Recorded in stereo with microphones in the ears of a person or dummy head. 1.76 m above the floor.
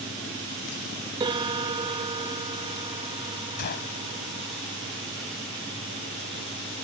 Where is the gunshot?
50° left (ahead or behind).